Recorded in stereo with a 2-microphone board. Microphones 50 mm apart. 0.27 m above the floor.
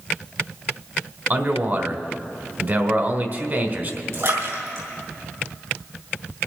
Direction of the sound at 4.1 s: 65° right (ahead or behind).